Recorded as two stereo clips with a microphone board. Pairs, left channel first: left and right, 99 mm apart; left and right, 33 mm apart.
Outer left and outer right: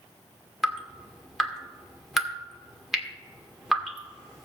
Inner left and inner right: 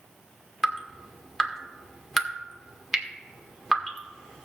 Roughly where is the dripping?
Centre.